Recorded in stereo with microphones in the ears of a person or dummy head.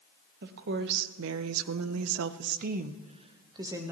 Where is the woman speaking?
55° right (ahead or behind), 1.1 m; by 3.9 s 15° right (ahead or behind), 1.1 m.